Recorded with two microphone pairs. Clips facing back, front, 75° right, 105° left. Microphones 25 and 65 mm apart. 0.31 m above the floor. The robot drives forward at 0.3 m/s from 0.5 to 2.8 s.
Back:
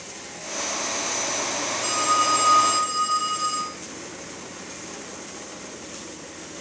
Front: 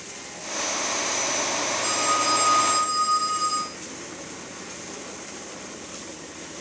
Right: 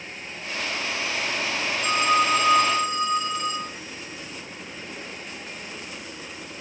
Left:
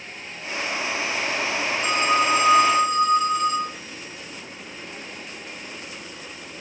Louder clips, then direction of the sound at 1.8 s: Back 3 dB, even; 160° left.